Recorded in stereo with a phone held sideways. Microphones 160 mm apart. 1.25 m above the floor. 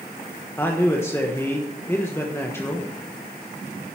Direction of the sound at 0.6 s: 15° left (ahead or behind).